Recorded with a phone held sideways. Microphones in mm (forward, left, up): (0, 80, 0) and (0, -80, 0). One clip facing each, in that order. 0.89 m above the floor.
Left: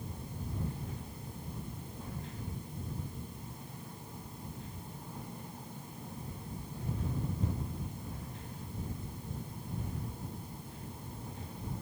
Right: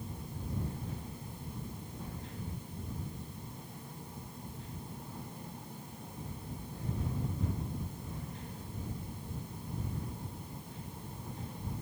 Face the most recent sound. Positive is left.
No sound to turn to.